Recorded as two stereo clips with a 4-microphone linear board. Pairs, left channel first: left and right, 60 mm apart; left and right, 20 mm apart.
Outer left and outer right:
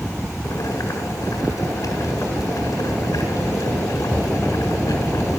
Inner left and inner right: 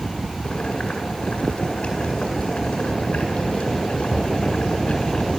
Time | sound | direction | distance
0.4 | boiling | 75° left (ahead or behind) | 7.5 m